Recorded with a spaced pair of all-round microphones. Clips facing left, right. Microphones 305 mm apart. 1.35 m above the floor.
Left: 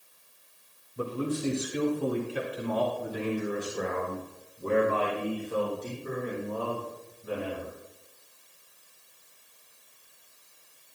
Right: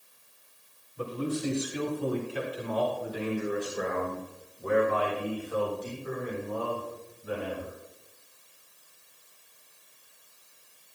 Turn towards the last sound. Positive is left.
turn(degrees=30)  # may be behind; listen again after turning